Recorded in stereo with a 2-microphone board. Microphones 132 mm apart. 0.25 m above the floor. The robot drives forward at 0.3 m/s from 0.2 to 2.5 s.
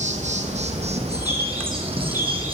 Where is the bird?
30° left (ahead or behind), 3 m; by 2.5 s 25° left (ahead or behind), 3.5 m.